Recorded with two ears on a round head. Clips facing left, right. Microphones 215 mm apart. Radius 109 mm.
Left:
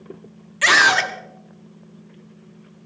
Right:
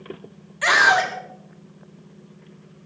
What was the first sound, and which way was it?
A scream, 40° left (ahead or behind).